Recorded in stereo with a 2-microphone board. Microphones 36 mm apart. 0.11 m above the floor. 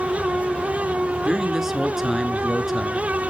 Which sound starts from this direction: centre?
A man speaking, at 1.2 s.